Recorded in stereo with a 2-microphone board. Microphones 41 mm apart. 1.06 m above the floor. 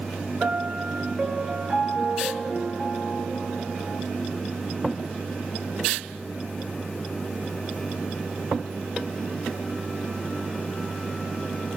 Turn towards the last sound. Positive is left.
turn(degrees=-20)  # may be behind; listen again after turning